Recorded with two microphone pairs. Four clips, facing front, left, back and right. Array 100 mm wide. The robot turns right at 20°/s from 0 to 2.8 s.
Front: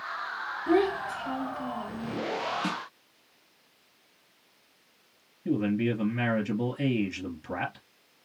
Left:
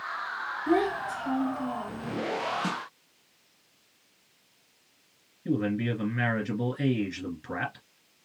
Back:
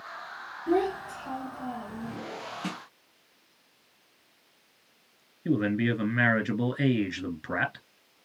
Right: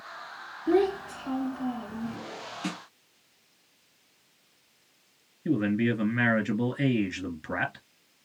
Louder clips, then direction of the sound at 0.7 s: Right 2 dB, front 2 dB; 10° left.